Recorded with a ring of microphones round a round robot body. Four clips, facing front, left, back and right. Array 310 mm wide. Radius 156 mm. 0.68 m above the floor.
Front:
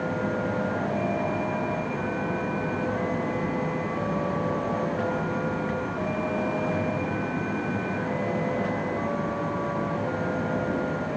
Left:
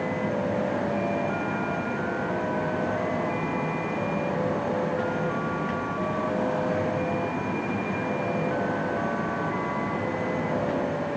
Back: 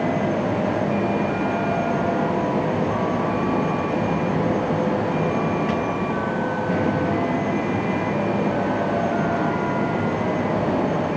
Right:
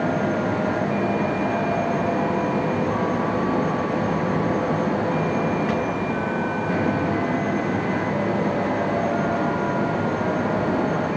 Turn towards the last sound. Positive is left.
No sound to turn to.